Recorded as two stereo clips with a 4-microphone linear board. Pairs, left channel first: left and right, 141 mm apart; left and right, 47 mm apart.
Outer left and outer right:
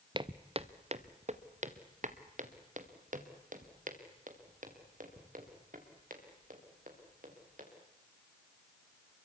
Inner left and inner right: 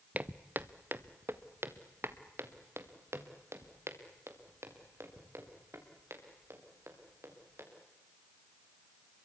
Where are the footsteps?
35° right (ahead or behind), 0.9 m; by 7.6 s 75° right (ahead or behind), 6 m.